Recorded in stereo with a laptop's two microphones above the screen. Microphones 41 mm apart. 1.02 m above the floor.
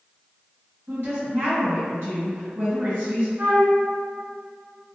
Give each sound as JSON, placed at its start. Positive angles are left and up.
{"t": 0.9, "sound": "a woman speaking", "side_deg": -70, "distance_m": 1.6}
{"t": 3.4, "sound": "a flute", "side_deg": -50, "distance_m": 0.9}